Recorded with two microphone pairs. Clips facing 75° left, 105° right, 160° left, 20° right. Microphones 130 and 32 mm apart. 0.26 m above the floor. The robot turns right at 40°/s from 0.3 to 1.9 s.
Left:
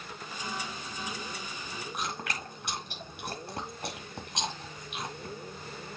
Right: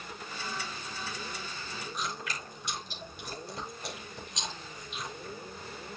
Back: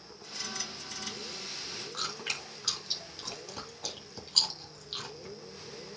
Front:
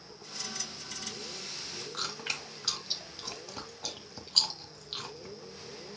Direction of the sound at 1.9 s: 65° left.